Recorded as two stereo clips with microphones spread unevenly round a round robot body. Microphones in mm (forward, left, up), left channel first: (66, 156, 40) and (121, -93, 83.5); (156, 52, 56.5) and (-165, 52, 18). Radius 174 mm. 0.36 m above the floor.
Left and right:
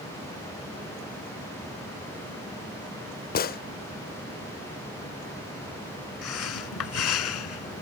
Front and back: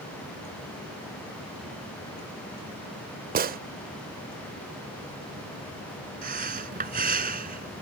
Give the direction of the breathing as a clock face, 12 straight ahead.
8 o'clock.